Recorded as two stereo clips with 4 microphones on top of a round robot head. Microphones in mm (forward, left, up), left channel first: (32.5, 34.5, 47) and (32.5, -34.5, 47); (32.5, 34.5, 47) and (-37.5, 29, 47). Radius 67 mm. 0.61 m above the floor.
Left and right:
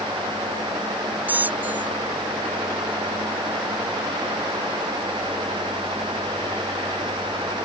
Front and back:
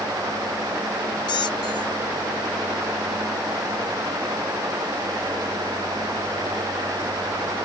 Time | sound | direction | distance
1.3 | a squeak | 25° right | ?